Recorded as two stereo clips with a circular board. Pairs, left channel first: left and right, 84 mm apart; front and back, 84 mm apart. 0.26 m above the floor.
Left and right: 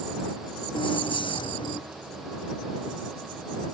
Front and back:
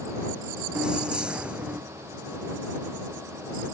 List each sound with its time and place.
0.8 s keys jangling: 100° left; by 1.8 s 105° left